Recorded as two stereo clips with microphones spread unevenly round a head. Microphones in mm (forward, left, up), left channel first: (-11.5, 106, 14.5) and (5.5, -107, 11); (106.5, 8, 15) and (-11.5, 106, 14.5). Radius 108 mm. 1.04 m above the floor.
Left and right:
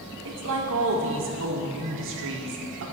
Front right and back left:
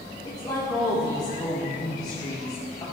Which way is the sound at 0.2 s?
110° right.